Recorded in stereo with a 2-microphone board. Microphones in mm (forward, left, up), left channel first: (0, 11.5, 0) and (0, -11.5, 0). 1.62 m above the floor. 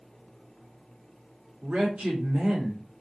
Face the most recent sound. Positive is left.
turn(degrees=-65)  # may be behind; listen again after turning